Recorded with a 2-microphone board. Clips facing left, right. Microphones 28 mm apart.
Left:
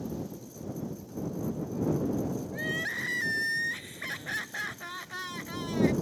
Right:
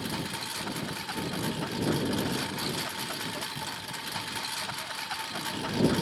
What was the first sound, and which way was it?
A lawn mower, 80° right.